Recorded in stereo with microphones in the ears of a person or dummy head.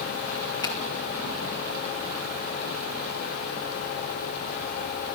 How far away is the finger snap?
About 2.5 m.